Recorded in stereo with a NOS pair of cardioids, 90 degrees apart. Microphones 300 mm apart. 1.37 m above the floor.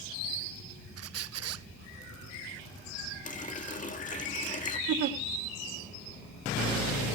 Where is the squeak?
60° right, 0.6 m.